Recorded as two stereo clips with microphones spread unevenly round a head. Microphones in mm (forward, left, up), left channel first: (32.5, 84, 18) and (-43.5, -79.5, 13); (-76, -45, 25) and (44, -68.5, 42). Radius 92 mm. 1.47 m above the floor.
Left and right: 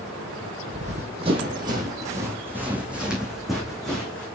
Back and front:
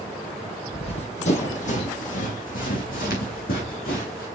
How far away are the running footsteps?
About 2.5 m.